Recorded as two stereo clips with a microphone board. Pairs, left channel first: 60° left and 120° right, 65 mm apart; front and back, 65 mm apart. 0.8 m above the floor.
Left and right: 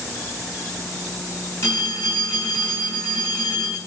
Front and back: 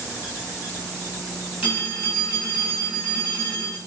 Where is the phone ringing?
110° left, 4 m.